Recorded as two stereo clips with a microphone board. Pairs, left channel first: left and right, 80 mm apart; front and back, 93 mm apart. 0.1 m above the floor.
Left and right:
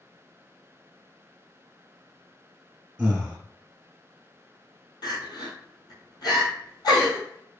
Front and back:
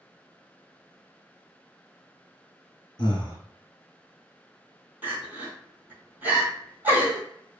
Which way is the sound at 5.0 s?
110° left.